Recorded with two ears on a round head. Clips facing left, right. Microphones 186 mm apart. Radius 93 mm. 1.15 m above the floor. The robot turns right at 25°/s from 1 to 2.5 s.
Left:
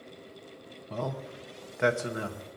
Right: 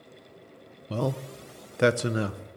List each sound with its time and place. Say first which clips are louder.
0.9 s a man speaking: right 5 dB; 45° right (ahead or behind), 0.8 m